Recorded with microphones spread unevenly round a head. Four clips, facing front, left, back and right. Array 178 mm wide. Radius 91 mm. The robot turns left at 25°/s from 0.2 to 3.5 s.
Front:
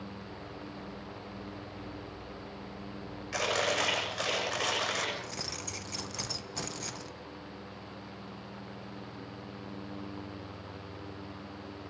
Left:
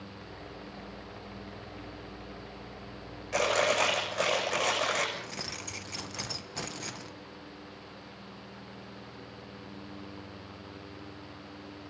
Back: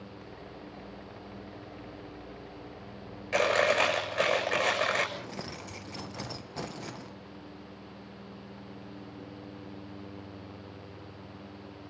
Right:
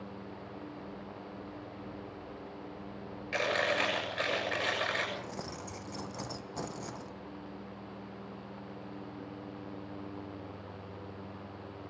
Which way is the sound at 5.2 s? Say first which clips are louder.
Right 1 dB, back 1 dB; 170° right.